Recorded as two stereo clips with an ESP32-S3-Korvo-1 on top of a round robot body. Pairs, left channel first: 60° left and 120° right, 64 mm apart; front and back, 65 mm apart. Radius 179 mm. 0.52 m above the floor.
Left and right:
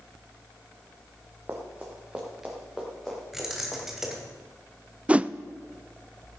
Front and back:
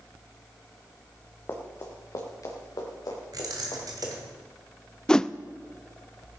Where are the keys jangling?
155° left, 2.5 m.